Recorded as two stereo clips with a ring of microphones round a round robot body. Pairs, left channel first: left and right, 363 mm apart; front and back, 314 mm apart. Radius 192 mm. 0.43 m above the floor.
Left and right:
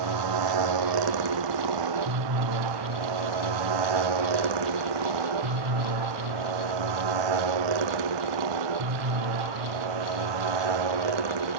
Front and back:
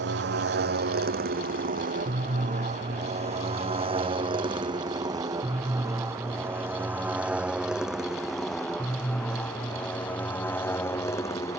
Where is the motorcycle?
120° right; by 11.6 s 80° right.